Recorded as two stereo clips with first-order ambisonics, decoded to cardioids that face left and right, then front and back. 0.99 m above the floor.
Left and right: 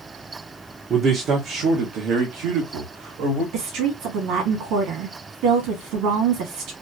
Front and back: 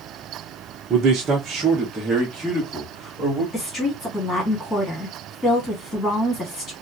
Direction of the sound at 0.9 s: 135° right.